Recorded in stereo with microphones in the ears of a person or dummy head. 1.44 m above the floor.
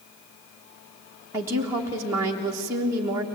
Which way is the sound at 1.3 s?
15° right (ahead or behind).